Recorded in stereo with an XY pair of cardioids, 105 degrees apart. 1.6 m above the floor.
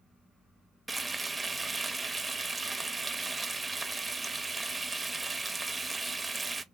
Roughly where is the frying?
Ahead.